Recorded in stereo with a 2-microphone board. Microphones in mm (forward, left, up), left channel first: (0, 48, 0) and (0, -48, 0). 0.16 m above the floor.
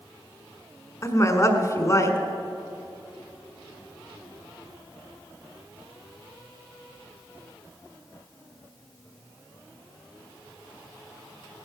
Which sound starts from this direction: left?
A woman speaking, at 1.0 s.